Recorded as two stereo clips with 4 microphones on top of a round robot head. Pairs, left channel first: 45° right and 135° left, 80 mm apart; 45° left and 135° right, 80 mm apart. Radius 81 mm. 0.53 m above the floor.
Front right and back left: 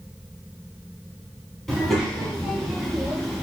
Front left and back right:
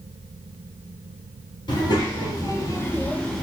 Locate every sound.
1.7 s a child speaking: 45° left, 1.3 m; by 3.4 s 10° right, 0.7 m